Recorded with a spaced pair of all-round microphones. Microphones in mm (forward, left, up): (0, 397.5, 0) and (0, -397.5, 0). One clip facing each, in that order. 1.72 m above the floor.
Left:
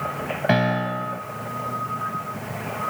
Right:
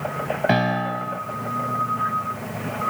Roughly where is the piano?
Centre.